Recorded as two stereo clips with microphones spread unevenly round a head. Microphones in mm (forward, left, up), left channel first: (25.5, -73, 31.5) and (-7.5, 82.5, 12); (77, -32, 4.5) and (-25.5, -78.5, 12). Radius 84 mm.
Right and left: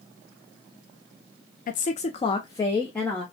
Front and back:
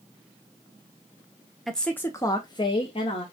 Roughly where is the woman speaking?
Ahead right.